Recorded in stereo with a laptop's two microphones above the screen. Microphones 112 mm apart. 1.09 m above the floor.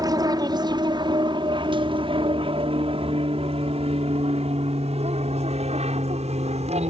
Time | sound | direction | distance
0.0 | an aircraft | 35° right (ahead or behind) | ?